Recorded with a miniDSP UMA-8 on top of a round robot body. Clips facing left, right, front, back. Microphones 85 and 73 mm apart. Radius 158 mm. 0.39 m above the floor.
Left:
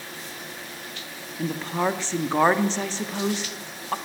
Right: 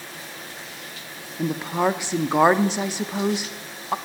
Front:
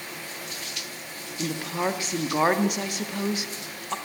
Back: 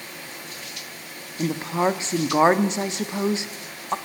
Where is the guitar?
No guitar in this recording.